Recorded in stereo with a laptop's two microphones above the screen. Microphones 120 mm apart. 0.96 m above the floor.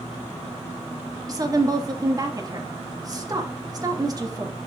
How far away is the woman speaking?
About 1.7 m.